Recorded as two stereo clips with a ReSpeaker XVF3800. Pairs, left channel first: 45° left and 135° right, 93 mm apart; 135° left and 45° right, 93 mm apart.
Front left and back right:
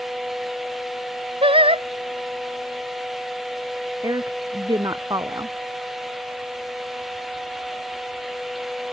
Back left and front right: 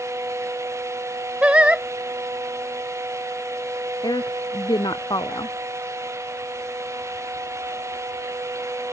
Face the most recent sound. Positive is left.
turn(degrees=175)